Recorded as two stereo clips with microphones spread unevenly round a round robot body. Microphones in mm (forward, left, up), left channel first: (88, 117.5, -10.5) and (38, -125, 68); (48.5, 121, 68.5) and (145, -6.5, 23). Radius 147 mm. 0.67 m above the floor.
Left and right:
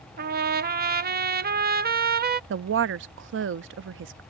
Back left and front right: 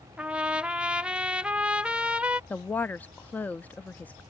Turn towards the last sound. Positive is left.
turn(degrees=-135)